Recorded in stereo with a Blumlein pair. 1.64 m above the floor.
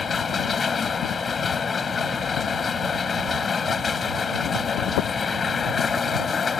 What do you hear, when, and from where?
0.0 s a machine running: 15° left